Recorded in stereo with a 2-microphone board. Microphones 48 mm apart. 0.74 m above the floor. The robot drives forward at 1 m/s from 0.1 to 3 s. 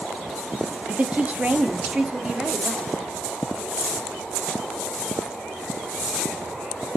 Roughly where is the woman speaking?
Right.